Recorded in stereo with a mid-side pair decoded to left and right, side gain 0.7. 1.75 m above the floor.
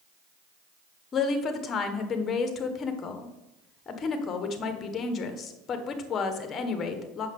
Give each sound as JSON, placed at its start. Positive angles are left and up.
{"t": 1.1, "sound": "a woman speaking", "azimuth_deg": 35, "distance_m": 1.5}